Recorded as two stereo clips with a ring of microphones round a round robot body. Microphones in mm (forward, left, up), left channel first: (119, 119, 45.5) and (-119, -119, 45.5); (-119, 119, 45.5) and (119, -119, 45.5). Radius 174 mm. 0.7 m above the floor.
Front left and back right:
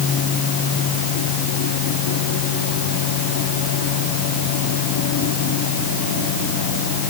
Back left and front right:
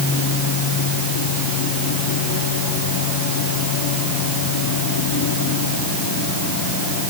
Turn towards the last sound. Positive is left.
No sound to turn to.